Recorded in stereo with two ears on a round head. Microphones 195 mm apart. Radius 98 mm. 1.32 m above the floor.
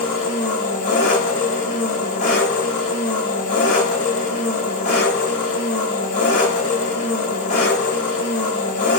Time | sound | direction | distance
0.0 | an engine running | 35° left (ahead or behind) | 1.2 m